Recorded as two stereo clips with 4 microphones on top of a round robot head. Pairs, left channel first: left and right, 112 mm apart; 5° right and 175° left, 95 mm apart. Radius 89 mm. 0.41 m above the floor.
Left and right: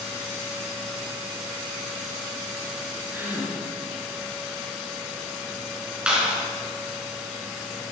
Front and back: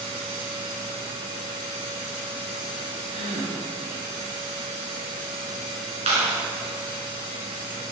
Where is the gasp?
165° right, 3 m.